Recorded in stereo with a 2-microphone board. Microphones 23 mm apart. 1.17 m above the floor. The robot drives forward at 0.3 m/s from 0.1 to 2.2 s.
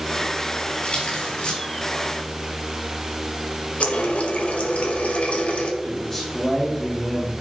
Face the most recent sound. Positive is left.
turn(degrees=25)  # may be behind; listen again after turning